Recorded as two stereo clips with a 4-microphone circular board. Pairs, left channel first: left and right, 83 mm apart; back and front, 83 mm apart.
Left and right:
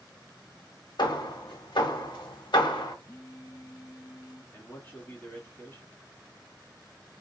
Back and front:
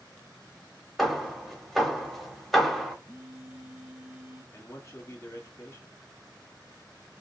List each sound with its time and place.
1.0 s hammering: 90° left, 0.8 m
3.0 s a phone buzzing: 60° left, 1.4 m
4.5 s a man speaking: 145° left, 1.3 m